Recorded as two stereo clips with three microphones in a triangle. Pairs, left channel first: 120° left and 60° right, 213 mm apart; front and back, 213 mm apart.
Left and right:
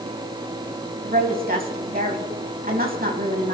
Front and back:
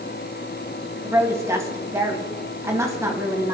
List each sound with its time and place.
1.0 s a woman speaking: 105° right, 3.5 m